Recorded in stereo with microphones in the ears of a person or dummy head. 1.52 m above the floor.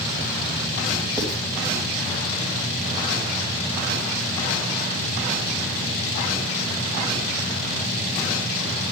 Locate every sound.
1.2 s writing: centre (ahead or behind), 3.5 m